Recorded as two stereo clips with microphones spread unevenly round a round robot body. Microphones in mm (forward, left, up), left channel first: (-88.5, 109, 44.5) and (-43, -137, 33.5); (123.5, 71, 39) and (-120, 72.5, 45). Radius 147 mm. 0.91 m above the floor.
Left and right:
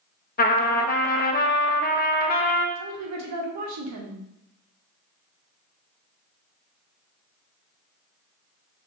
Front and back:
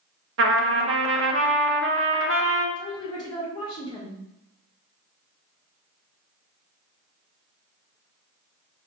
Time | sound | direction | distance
0.4 | a trumpet | 155° left | 0.7 m
2.8 | a woman speaking | 75° right | 1.0 m